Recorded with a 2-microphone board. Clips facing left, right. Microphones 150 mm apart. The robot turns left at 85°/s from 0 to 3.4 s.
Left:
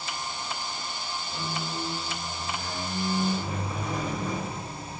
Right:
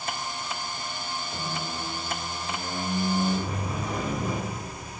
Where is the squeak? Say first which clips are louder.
Left 2 dB; 10° left, 1.6 m; by 5.0 s 170° right, 1.6 m.